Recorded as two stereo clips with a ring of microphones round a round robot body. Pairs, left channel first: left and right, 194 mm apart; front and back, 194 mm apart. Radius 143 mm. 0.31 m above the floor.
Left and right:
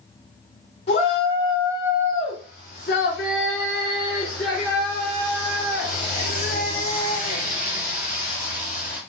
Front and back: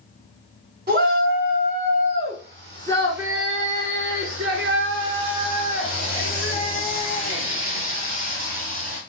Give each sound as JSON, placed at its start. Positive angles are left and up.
{"t": 0.9, "sound": "a shout", "azimuth_deg": 155, "distance_m": 2.5}